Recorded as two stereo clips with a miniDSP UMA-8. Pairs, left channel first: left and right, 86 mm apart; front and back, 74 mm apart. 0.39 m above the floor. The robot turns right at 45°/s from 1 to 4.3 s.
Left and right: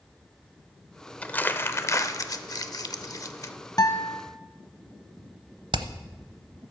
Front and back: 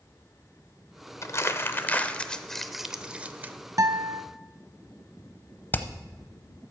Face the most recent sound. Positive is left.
turn(degrees=-65)